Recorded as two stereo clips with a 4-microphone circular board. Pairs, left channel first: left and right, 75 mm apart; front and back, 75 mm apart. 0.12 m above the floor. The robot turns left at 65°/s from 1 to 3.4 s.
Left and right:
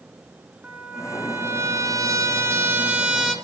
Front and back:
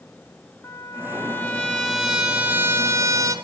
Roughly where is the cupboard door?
No cupboard door in this recording.